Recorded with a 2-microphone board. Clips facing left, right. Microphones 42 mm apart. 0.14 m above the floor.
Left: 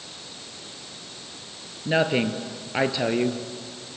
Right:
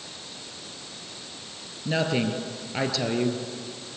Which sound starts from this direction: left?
A woman speaking, at 1.9 s.